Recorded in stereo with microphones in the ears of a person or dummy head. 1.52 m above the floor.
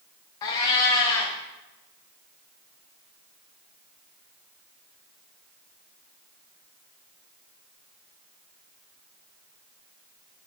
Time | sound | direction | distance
0.4 | a cat meowing | 20° left (ahead or behind) | 0.7 m